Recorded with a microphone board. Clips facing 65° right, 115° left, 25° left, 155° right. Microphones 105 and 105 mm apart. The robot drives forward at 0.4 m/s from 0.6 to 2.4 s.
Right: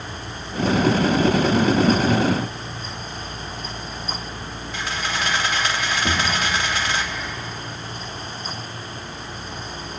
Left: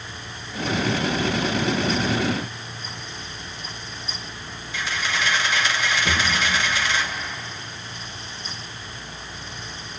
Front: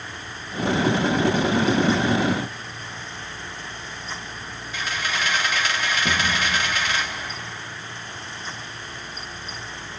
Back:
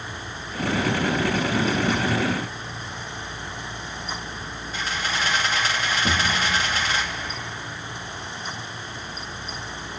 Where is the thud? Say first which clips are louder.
Right 1 dB, back 1 dB; 110° right, 6 m.